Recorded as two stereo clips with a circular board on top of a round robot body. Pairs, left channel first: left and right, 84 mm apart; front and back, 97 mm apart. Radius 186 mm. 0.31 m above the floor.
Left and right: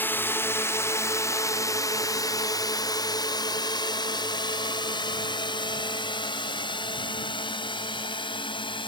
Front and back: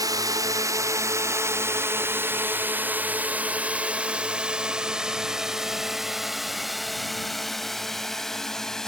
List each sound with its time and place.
0.0 s a drone: 150° left; by 8.9 s 85° left